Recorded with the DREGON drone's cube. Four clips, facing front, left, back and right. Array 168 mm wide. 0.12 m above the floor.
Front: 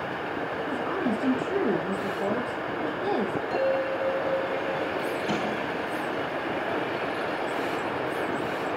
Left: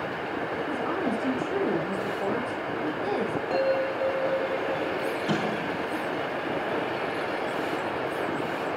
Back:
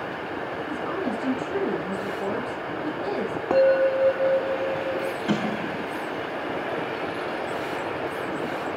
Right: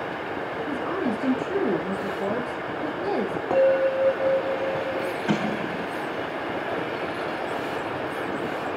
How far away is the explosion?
About 6.5 m.